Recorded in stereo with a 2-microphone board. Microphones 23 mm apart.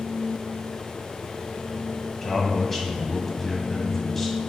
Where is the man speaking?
10° left (ahead or behind), 1.7 m.